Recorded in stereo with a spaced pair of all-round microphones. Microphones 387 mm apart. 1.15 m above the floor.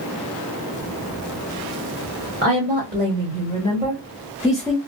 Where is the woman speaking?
30° right (ahead or behind), 2.0 m; by 4.8 s 5° left (ahead or behind), 1.1 m.